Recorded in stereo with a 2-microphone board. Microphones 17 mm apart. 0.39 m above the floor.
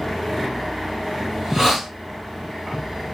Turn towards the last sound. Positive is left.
turn(degrees=-40)  # may be behind; listen again after turning